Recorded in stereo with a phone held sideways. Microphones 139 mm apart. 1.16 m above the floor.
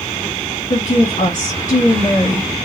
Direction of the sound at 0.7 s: 60° left (ahead or behind).